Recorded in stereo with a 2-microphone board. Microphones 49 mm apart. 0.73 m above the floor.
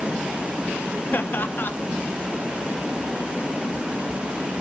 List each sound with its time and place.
1.1 s laughter: 45° left (ahead or behind), 1.1 m